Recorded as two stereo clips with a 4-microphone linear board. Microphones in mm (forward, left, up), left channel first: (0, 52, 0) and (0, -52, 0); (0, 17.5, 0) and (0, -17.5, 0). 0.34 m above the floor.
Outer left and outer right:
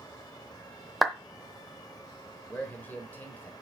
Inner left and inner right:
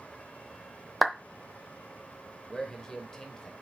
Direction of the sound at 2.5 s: 15° left (ahead or behind).